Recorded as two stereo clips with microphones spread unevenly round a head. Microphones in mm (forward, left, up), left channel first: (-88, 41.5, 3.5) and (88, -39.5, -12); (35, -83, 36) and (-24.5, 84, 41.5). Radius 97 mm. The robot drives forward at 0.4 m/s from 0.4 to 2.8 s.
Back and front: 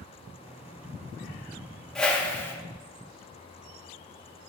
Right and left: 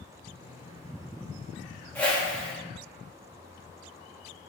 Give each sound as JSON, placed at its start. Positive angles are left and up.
{"t": 1.9, "sound": "a whoosh", "azimuth_deg": -140, "distance_m": 1.1}